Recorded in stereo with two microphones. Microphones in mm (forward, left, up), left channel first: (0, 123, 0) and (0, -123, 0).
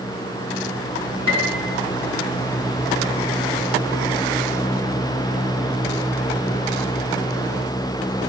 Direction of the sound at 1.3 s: 70° left (ahead or behind).